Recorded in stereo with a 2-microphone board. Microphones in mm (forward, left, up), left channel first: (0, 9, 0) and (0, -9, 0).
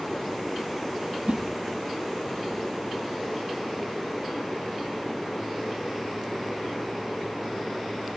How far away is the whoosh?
About 0.7 m.